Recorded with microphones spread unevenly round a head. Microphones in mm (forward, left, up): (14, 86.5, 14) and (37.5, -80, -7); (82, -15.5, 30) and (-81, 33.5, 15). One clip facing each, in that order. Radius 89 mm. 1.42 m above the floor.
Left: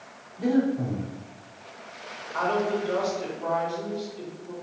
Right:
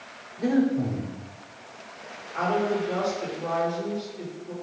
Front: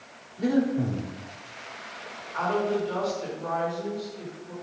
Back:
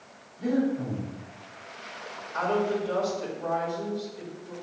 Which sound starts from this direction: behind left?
A woman speaking, at 2.3 s.